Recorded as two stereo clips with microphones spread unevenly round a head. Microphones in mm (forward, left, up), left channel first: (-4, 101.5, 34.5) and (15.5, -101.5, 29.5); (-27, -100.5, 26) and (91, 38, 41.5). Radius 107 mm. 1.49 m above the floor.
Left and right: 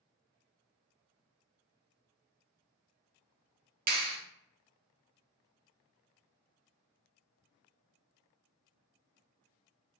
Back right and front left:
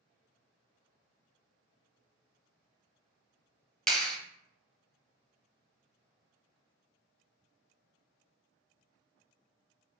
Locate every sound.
3.9 s a clap: 40° right, 0.7 m